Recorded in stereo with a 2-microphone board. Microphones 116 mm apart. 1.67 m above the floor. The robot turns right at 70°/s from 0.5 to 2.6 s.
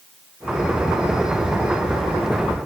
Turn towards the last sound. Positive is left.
No sound to turn to.